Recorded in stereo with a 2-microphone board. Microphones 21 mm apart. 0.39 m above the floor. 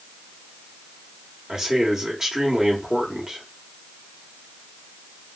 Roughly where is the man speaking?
Right.